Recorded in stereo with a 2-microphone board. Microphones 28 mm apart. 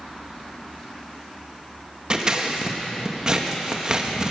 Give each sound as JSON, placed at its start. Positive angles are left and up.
{"t": 2.1, "sound": "scissors", "side_deg": -30, "distance_m": 1.4}